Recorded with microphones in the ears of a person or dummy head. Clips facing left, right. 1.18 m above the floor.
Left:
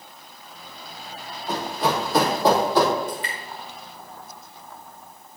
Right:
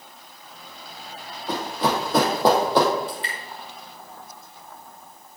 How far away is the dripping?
About 1.6 m.